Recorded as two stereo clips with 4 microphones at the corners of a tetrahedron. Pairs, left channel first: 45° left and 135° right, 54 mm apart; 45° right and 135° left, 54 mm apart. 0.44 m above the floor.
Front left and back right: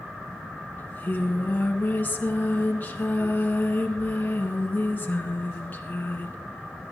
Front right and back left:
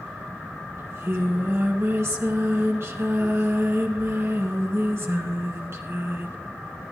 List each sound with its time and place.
0.8 s singing: 100° left, 1.7 m